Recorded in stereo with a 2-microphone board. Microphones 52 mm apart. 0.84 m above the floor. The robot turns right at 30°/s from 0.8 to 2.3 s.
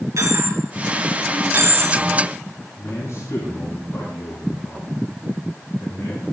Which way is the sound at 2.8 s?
70° left (ahead or behind).